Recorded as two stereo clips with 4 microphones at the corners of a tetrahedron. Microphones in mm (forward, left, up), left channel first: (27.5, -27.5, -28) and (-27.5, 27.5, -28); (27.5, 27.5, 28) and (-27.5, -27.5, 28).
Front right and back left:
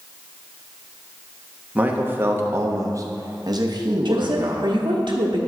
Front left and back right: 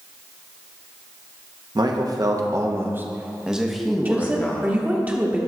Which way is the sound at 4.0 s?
155° left.